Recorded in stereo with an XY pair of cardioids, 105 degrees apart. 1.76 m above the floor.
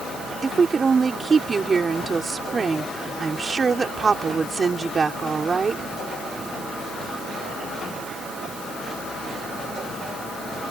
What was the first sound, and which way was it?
A woman speaking, 35° right.